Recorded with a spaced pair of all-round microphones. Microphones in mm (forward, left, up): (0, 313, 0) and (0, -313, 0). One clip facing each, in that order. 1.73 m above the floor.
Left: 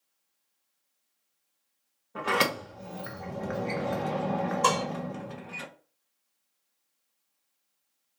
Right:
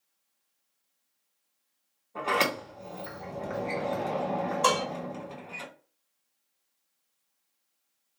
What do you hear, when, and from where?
2.1 s a sliding door: 45° left (ahead or behind), 0.6 m
4.6 s dishes clattering: 15° right (ahead or behind), 0.7 m